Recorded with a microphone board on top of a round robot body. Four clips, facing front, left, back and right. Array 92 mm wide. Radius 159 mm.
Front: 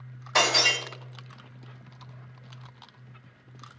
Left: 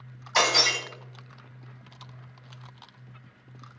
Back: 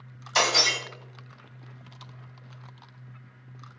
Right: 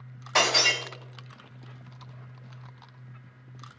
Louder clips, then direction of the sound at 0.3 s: Even, front 1 dB; 50° right.